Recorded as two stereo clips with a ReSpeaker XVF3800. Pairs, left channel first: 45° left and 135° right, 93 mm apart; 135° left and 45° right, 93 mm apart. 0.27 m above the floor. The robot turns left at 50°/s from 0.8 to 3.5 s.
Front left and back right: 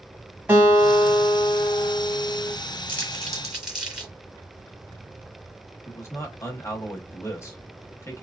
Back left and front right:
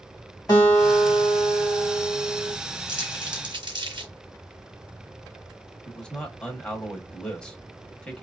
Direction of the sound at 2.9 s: 20° right.